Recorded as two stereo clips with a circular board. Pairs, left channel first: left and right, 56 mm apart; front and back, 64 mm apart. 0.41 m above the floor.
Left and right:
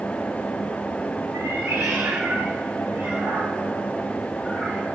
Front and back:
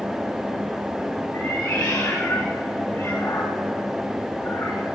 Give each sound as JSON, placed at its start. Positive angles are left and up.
{"t": 1.3, "sound": "a cat meowing", "azimuth_deg": -50, "distance_m": 5.0}